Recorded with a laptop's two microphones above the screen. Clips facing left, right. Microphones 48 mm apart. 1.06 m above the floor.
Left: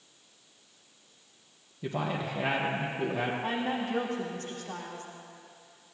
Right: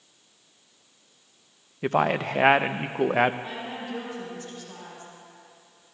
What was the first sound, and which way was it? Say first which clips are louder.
A man speaking: right 9 dB; 60° right (ahead or behind).